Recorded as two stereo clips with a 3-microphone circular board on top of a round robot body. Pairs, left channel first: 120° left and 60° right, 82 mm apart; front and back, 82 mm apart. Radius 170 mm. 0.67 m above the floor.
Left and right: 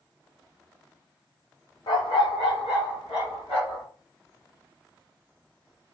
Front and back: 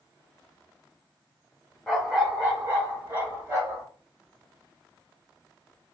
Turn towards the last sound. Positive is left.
turn(degrees=130)